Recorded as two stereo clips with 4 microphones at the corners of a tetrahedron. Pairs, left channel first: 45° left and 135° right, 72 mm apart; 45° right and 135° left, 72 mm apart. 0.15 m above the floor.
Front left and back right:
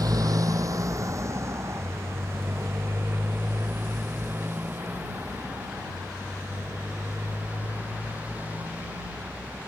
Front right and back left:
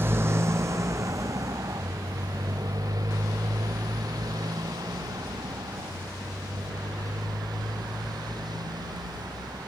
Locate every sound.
0.0 s a motorcycle: 165° right; by 9.7 s 155° left